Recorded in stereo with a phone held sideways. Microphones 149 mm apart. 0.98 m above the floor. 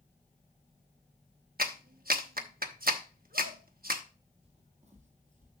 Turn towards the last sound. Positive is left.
turn(degrees=-55)  # may be behind; listen again after turning